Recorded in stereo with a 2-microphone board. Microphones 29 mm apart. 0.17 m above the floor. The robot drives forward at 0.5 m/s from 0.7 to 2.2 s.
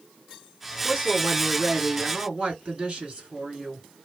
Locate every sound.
0.8 s a woman speaking: 50° right (ahead or behind), 2 m; by 3.9 s 45° right (ahead or behind), 2 m